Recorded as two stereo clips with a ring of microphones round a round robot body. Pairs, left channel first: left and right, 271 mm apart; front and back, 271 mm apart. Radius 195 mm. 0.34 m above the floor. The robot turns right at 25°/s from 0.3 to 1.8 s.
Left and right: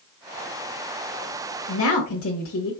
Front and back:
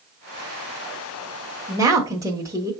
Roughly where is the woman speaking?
Left.